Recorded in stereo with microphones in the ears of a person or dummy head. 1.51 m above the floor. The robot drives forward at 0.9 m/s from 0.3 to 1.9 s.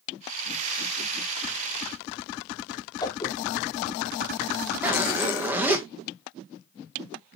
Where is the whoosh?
20° left (ahead or behind), 1.8 m.